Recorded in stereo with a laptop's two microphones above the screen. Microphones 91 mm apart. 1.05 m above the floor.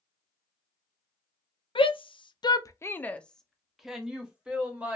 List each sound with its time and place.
1.8 s a shout: 70° left (ahead or behind), 0.7 m; by 5.0 s 15° right (ahead or behind), 1.7 m